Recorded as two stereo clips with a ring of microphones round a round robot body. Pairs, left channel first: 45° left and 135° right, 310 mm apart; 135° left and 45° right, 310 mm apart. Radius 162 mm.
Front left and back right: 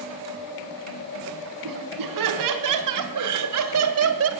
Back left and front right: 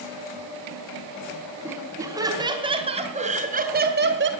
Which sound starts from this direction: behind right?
Laughter, at 1.6 s.